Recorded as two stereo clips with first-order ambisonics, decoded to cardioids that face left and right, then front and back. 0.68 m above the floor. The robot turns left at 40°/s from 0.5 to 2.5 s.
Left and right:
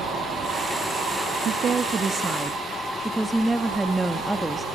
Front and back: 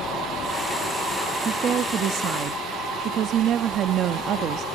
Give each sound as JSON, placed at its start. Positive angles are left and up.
{"t": 1.4, "sound": "a woman speaking", "azimuth_deg": -130, "distance_m": 0.7}